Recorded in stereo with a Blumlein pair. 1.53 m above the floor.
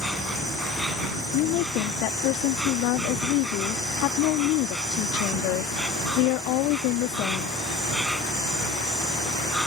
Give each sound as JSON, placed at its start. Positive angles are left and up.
{"t": 0.0, "sound": "an insect", "azimuth_deg": 0}
{"t": 1.3, "sound": "a woman speaking", "azimuth_deg": 40}